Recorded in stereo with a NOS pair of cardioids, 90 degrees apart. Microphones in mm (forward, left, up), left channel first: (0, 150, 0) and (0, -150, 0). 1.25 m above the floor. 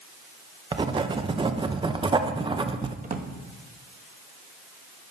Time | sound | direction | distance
0.7 | writing | 15° right | 0.7 m
3.0 | a drawer | 25° right | 1.0 m